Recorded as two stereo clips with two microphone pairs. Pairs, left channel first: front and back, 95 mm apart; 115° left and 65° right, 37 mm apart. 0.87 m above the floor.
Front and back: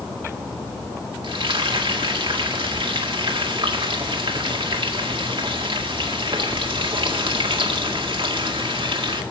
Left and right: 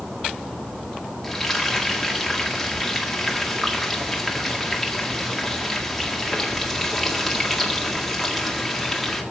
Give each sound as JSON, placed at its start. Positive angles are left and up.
{"t": 1.2, "sound": "frying", "azimuth_deg": -160, "distance_m": 1.9}